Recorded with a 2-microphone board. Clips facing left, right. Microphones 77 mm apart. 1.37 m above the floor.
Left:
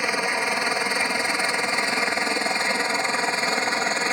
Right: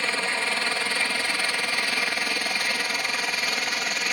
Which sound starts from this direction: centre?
A helicopter, at 0.0 s.